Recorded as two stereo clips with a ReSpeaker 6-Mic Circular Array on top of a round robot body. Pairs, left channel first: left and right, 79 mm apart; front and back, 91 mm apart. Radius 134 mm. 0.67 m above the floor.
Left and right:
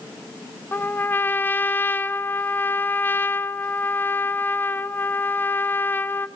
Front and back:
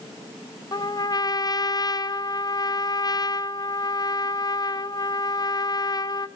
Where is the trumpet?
30° left, 1.6 m.